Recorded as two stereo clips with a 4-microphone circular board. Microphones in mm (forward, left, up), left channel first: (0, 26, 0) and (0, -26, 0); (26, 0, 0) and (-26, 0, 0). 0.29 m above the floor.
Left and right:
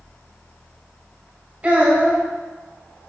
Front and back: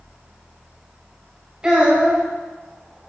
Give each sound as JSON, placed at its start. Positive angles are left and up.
{"t": 1.6, "sound": "a child speaking", "azimuth_deg": -125, "distance_m": 1.2}